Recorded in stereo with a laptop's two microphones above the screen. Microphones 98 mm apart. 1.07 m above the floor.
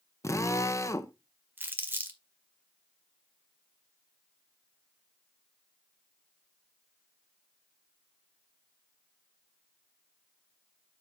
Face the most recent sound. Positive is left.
turn(degrees=-20)  # may be behind; listen again after turning